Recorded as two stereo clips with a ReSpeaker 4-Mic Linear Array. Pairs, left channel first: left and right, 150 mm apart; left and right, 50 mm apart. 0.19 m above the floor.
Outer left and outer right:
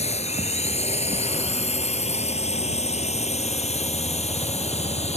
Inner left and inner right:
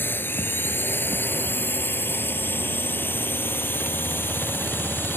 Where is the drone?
45° left (ahead or behind).